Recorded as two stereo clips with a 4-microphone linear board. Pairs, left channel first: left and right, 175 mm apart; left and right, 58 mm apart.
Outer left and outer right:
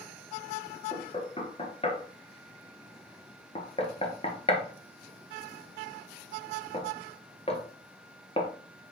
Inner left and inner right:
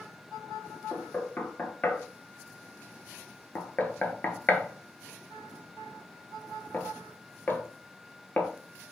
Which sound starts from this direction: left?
Knocking, at 0.9 s.